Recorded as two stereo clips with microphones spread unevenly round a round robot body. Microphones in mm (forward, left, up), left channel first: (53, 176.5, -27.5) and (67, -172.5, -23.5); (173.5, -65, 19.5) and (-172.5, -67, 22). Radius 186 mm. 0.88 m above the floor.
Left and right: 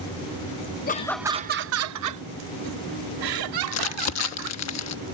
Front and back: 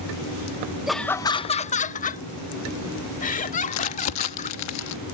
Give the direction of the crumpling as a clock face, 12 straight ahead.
10 o'clock.